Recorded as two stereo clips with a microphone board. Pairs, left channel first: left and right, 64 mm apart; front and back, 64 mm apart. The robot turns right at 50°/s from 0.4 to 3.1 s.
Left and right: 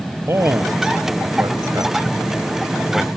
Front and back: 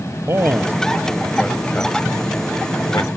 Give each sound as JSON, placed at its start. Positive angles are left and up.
{"t": 0.3, "sound": "a man speaking", "azimuth_deg": -135}